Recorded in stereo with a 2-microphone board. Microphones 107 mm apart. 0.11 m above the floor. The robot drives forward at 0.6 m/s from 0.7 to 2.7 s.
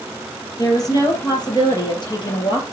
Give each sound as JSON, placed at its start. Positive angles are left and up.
{"t": 0.6, "sound": "a woman speaking", "side_deg": 35, "distance_m": 3.0}